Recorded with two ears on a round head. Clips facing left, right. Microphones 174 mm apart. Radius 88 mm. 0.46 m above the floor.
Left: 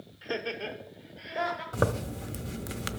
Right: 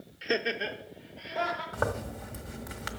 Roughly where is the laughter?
Right.